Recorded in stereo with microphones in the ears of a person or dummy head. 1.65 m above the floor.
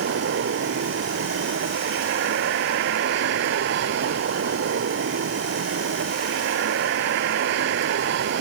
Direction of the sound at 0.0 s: 65° right (ahead or behind).